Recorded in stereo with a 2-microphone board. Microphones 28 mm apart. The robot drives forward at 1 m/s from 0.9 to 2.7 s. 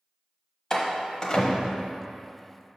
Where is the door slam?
25° left (ahead or behind), 1.0 m; by 1.9 s 30° left (ahead or behind), 0.8 m.